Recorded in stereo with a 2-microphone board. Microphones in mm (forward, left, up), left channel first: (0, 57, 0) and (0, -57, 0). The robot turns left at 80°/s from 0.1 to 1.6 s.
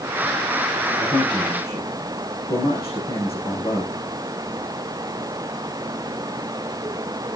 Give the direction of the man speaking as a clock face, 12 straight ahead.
9 o'clock.